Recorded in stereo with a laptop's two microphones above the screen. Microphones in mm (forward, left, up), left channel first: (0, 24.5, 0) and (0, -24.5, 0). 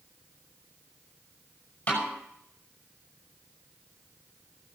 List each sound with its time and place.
1.9 s a snare drum: 30° left (ahead or behind), 6 m